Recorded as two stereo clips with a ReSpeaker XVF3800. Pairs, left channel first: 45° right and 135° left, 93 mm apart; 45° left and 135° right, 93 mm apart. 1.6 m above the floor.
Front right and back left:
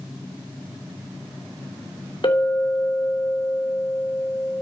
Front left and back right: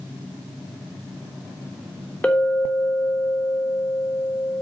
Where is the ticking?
I don't hear ticking.